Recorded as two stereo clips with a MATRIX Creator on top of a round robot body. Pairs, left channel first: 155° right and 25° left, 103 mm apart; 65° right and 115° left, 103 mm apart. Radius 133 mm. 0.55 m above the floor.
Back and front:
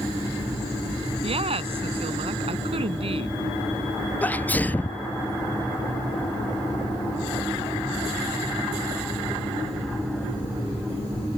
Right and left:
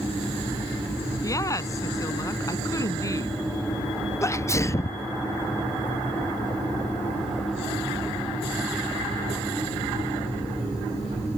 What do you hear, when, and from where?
1.2 s a woman speaking: 10° right
4.2 s a sneeze: 100° right